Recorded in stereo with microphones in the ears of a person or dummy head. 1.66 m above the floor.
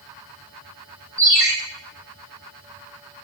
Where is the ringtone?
15° right (ahead or behind), 1.2 m.